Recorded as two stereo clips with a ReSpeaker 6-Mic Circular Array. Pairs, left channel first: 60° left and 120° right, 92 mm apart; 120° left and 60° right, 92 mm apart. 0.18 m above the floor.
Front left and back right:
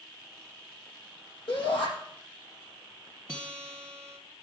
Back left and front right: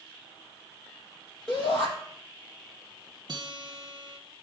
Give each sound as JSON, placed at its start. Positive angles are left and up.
{"t": 1.5, "sound": "a shout", "azimuth_deg": 35, "distance_m": 6.5}
{"t": 3.3, "sound": "a guitar", "azimuth_deg": -15, "distance_m": 2.0}